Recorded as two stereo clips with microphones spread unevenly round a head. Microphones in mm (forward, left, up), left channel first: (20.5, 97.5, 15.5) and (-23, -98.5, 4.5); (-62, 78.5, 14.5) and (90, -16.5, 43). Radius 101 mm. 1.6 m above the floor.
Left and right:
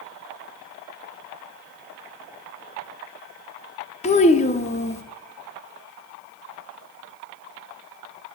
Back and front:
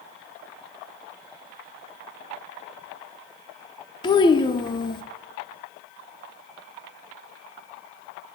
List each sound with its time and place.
4.0 s a child speaking: 85° left, 0.6 m